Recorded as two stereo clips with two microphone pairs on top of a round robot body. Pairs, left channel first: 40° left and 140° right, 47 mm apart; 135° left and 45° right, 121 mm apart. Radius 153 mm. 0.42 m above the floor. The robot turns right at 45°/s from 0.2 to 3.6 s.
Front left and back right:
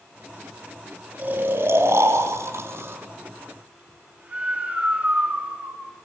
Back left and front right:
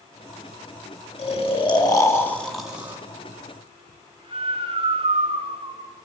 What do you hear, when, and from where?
1.2 s snoring: 165° left, 3.5 m; by 5.8 s 90° right, 3.5 m